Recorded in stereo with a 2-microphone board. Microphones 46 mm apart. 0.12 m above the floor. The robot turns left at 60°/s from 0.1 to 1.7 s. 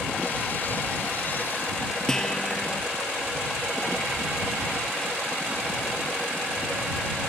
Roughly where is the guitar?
Centre.